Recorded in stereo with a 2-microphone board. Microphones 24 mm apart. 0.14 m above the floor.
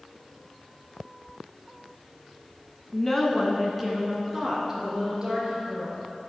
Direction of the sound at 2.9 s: 20° left (ahead or behind).